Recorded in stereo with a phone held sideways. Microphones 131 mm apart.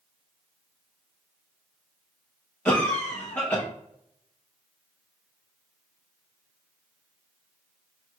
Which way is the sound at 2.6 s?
10° left (ahead or behind).